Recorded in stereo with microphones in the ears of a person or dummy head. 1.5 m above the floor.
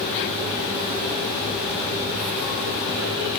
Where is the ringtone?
No ringtone in this recording.